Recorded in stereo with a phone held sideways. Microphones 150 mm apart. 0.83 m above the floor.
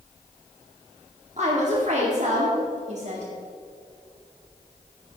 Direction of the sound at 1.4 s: 50° right (ahead or behind).